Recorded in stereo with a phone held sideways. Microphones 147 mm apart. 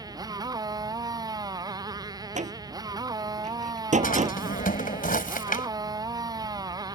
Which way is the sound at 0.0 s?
25° right (ahead or behind).